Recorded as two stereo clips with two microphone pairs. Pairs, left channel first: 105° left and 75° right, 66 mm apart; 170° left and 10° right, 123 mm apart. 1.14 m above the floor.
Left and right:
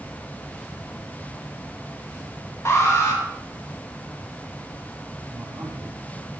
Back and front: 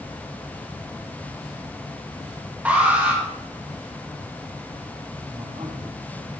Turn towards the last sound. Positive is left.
turn(degrees=-55)